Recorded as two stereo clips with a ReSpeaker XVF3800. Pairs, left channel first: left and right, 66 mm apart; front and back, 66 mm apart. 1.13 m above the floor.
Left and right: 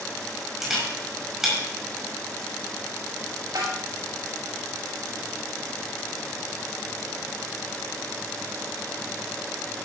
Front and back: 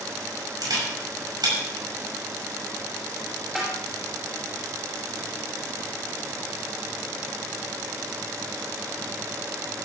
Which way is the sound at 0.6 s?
175° right.